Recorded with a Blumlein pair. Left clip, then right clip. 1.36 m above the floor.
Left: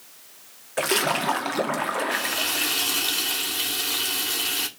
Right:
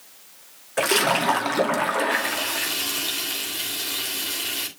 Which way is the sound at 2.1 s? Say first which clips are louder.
Right 1 dB; 5° left.